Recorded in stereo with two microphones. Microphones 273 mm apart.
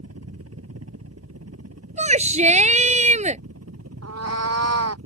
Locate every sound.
0.0 s a helicopter: 60° right (ahead or behind); by 5.1 s 65° right (ahead or behind)
2.0 s a shout: 25° right (ahead or behind)
4.0 s a cat meowing: 65° right (ahead or behind)